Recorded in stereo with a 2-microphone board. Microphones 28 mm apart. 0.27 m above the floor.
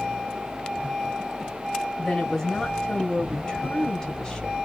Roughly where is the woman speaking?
Left.